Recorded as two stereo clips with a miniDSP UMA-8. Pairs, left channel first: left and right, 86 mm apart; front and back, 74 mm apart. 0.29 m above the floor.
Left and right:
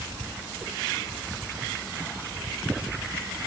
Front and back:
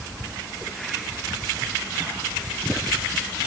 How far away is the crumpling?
I don't hear crumpling.